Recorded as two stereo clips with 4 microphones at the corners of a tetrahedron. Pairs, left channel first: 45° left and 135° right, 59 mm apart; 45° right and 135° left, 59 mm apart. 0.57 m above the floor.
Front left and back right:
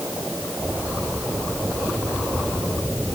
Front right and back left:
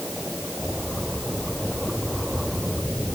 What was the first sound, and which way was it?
Only background noise.